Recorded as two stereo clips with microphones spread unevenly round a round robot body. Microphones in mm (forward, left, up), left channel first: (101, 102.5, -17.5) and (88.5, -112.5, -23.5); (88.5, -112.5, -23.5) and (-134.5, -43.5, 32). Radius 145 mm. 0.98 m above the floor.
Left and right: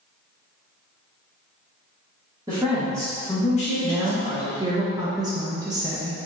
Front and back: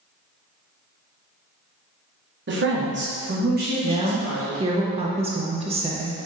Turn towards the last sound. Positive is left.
turn(degrees=-135)